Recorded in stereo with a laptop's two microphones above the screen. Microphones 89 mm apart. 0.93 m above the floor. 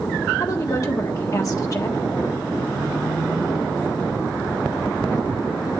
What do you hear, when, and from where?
0.4 s a woman speaking: 40° left (ahead or behind), 1.5 m